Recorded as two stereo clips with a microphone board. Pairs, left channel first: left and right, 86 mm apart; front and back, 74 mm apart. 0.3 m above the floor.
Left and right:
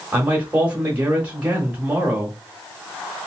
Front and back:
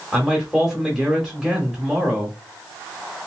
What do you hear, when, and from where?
0.1 s a man speaking: 105° right, 1.0 m